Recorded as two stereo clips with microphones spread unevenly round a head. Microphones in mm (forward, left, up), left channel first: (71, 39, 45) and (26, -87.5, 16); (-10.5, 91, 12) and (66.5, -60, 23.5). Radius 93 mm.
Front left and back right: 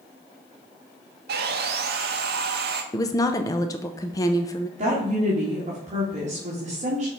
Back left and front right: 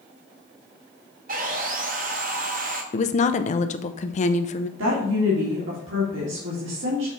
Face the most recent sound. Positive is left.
turn(degrees=-80)